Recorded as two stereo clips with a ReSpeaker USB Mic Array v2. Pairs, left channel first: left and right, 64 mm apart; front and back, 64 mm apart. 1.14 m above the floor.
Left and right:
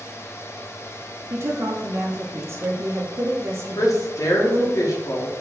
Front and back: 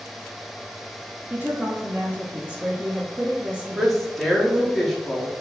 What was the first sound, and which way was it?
A woman speaking, 115° right.